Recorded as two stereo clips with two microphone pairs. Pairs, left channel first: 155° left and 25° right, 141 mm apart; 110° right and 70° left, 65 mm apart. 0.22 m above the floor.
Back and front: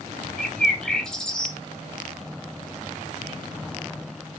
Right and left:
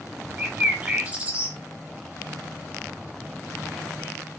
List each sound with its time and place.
0.4 s a bird: 80° left, 0.8 m